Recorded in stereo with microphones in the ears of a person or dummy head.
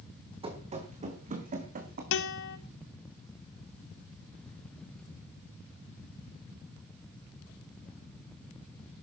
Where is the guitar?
75° left (ahead or behind), 3 m.